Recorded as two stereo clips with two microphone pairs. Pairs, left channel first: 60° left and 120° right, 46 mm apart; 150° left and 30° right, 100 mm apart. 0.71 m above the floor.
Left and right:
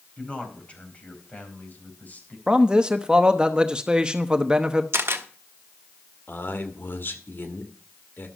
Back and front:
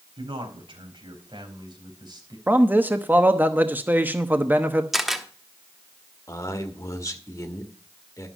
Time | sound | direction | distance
0.2 | a man speaking | straight ahead | 4.5 m
2.5 | a man speaking | 80° right | 0.9 m
4.9 | a camera shutter | 120° right | 1.2 m
6.3 | a man speaking | 90° left | 2 m